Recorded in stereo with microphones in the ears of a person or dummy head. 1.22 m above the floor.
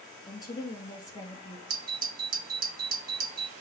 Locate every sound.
0.3 s a woman speaking: 20° left (ahead or behind), 2.5 m
1.7 s a doorbell: 50° right (ahead or behind), 2 m